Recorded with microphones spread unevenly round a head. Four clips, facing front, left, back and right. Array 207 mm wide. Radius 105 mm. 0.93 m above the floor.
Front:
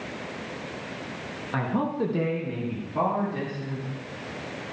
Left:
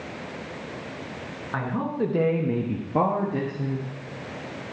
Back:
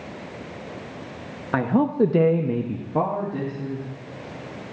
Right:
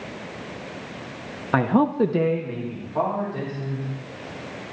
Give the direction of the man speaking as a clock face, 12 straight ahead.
4 o'clock.